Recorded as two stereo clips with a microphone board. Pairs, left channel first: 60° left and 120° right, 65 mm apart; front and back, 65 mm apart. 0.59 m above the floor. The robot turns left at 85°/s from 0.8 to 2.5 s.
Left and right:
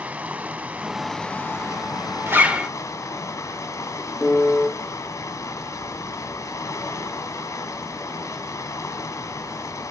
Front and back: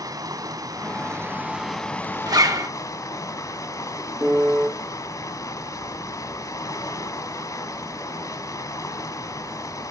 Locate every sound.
0.0 s running water: 165° left, 1.5 m; by 9.9 s 20° left, 1.5 m
2.3 s a zipper: 170° right, 0.9 m; by 2.7 s 170° left, 0.9 m
4.2 s a piano: 130° left, 1.5 m